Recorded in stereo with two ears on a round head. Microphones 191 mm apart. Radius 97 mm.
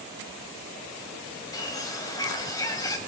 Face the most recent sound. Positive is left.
turn(degrees=15)  # may be behind; listen again after turning